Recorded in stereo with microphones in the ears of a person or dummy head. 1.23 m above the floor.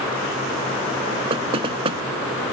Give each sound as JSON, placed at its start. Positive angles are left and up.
{"t": 1.3, "sound": "knocking", "side_deg": -30}